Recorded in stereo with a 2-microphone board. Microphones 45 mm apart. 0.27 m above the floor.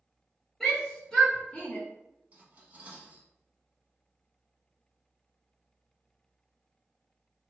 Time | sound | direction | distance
0.6 | a shout | 10° left (ahead or behind) | 1.6 m
2.3 | cutlery clinking | 40° right (ahead or behind) | 1.2 m